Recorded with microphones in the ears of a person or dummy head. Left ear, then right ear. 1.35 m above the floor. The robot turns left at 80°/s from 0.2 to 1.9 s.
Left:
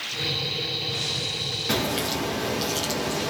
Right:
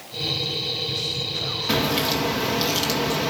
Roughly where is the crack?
Centre.